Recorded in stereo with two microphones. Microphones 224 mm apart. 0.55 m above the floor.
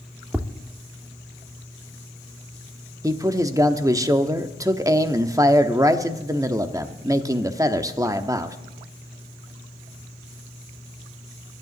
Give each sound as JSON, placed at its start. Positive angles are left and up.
{"t": 0.3, "sound": "tapping", "side_deg": -5, "distance_m": 0.6}
{"t": 3.0, "sound": "a man speaking", "side_deg": -15, "distance_m": 0.7}